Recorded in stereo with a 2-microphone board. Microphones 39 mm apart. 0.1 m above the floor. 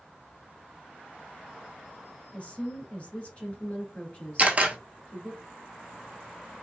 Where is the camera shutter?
35° right (ahead or behind), 0.6 m.